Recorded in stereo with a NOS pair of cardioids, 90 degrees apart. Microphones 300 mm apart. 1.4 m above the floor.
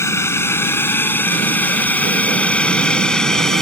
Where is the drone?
10° left; by 3.6 s straight ahead.